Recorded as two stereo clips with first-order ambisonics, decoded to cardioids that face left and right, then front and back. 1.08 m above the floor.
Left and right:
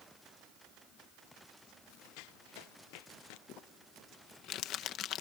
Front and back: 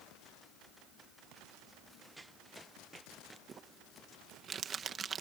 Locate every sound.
2.2 s running footsteps: 95° left; by 3.4 s 100° left
3.5 s crumpling: 125° left